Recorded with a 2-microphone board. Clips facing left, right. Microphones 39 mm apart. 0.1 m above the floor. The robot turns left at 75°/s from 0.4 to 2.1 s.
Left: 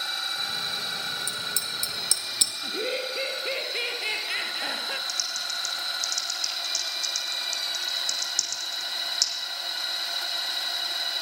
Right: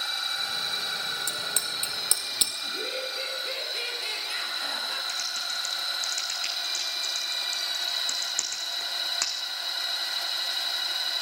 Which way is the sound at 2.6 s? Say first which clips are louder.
Left 3 dB; 35° left (ahead or behind).